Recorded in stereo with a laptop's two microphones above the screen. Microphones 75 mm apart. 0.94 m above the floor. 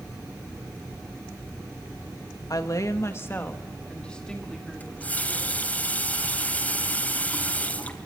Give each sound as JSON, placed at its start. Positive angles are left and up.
{"t": 2.5, "sound": "a woman speaking", "side_deg": 55, "distance_m": 1.5}
{"t": 4.8, "sound": "a running tap", "side_deg": 20, "distance_m": 3.0}